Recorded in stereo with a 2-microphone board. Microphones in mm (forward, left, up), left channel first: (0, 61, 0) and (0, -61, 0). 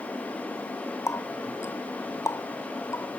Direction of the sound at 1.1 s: 25° left (ahead or behind).